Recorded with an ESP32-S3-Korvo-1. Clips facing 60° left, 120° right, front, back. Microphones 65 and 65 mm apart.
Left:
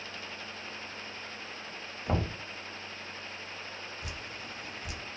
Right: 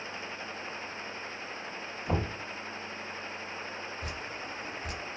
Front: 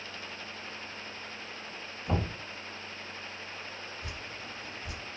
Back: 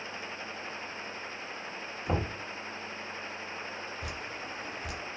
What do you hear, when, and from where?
2.1 s knocking: 115° left, 1.3 m
4.0 s dripping: 170° right, 0.6 m